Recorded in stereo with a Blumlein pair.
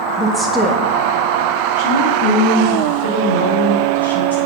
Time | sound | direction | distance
0.2 | a woman speaking | straight ahead | 0.9 m